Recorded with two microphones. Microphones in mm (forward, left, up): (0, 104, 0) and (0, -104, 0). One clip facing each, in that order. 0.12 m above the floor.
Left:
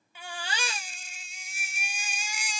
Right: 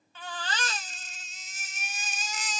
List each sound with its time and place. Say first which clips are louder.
0.1 s a baby crying: right 1 dB; 10° left (ahead or behind), 0.6 m